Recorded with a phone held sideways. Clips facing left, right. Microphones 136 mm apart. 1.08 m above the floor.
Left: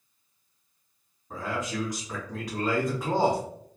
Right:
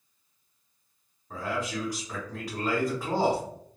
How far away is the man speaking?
About 1.0 m.